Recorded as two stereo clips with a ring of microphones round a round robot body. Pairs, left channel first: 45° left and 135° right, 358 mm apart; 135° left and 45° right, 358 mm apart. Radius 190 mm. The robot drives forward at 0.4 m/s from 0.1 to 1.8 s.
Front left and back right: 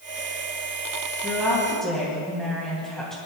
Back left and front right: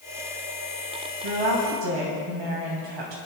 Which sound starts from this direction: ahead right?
A woman speaking, at 1.2 s.